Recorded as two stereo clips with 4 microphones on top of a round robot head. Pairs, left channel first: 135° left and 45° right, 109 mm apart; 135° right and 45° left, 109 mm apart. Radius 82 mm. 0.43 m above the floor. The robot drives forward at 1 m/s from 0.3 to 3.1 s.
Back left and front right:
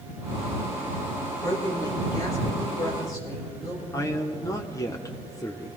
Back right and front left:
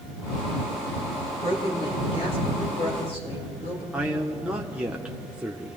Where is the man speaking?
115° left, 1.0 m.